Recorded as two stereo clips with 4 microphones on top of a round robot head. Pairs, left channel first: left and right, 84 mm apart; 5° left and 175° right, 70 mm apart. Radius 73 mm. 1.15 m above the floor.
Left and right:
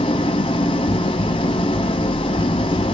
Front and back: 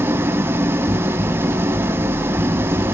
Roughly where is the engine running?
Behind left.